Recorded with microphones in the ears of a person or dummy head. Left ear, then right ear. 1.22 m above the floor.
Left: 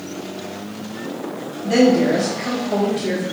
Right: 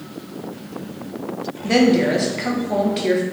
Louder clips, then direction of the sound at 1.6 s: Left 1 dB; 35° right (ahead or behind).